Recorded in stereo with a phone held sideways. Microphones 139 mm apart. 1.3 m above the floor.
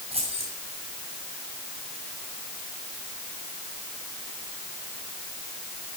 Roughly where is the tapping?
I don't hear tapping.